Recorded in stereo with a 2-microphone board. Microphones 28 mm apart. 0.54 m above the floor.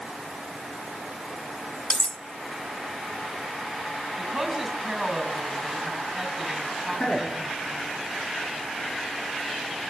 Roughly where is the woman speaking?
Centre.